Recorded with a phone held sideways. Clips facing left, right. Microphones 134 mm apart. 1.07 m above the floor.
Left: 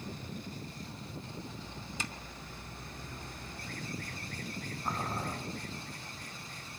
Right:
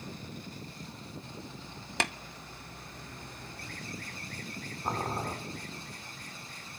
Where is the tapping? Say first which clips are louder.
Right 10 dB; 70° right (ahead or behind), 1.0 m.